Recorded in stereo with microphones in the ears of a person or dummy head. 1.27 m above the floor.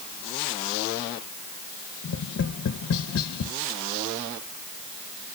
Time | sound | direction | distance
2.0 | tapping | 65° left (ahead or behind) | 0.6 m